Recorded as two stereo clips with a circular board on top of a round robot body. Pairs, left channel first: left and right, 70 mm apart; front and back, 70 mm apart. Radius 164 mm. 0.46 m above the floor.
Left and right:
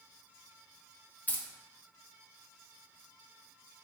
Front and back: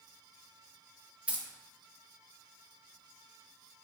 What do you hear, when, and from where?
1.3 s keys jangling: 130° left, 0.6 m